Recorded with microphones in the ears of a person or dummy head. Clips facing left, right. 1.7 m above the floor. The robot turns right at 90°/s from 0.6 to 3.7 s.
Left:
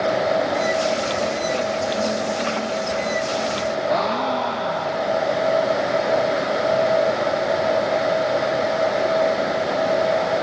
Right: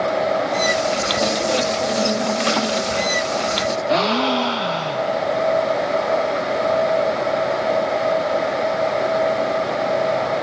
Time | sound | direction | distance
3.9 | a gasp | 45° right (ahead or behind) | 0.8 m